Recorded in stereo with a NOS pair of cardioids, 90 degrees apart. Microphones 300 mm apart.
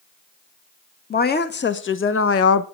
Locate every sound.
1.1 s a woman speaking: 30° left, 1.8 m; by 2.6 s 60° left, 1.1 m